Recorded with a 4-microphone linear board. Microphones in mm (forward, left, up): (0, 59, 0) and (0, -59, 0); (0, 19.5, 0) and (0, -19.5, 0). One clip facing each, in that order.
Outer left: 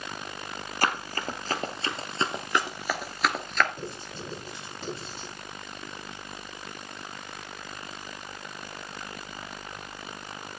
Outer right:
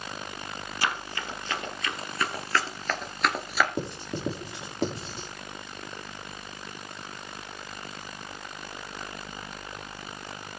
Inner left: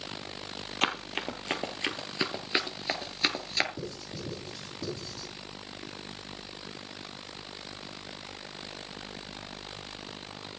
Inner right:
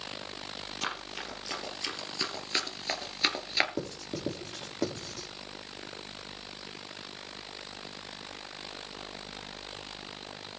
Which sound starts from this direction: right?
Writing, at 3.8 s.